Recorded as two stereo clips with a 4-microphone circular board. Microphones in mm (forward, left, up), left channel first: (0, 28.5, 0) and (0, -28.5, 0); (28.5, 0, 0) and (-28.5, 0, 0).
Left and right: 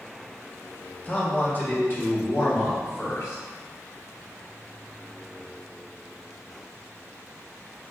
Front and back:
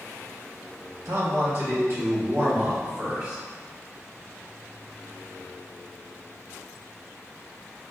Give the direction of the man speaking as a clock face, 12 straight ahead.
7 o'clock.